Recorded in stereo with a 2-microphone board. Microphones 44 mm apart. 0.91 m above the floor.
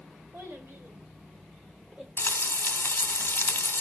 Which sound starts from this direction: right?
A child speaking, at 0.3 s.